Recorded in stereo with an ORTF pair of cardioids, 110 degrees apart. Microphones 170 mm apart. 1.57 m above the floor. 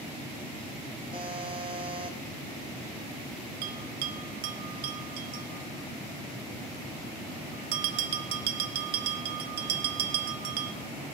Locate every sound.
1.1 s a buzzer: 30° right, 2.0 m
3.6 s a bell: 65° right, 1.1 m